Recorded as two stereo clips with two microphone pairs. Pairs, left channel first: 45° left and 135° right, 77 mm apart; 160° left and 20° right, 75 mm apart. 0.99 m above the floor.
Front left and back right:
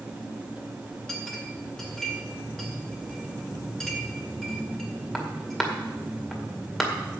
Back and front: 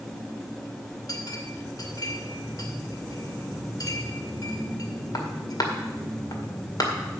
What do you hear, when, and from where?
1.1 s a clink: 130° left, 2 m